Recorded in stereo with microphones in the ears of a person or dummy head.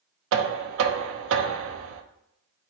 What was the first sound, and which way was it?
Knocking, 70° right (ahead or behind).